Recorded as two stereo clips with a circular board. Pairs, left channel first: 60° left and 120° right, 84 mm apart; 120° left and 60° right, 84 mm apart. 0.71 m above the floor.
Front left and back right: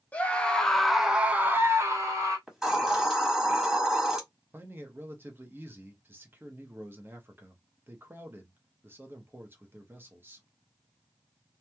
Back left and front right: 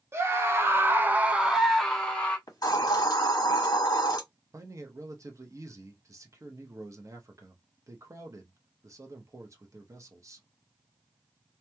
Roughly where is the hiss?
Behind left.